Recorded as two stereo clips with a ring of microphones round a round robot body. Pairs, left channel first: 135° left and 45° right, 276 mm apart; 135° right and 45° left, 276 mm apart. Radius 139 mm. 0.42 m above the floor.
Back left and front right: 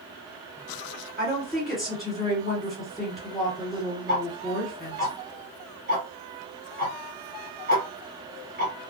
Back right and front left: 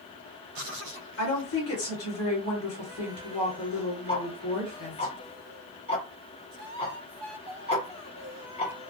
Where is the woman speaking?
135° right, 1.9 m.